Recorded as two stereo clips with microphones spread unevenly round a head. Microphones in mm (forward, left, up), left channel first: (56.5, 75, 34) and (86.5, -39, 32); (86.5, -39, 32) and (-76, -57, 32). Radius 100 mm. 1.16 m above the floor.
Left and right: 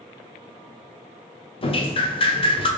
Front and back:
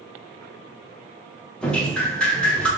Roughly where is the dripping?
Left.